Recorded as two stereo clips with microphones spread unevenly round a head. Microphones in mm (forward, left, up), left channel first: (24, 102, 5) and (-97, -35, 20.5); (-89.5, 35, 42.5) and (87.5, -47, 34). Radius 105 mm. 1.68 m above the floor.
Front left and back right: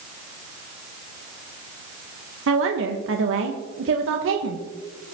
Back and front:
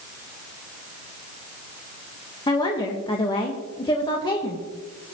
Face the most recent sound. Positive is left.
turn(degrees=-135)